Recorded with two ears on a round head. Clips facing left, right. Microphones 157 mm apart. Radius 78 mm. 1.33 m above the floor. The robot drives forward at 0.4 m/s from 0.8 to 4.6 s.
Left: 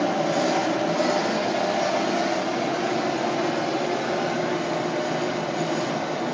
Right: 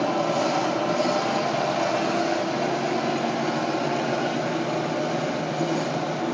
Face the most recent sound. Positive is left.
turn(degrees=5)  # may be behind; listen again after turning